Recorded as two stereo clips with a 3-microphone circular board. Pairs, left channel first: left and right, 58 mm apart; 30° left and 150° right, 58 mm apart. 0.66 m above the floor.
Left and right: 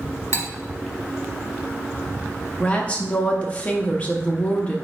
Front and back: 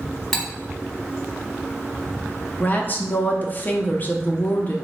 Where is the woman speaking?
45° left, 0.6 m.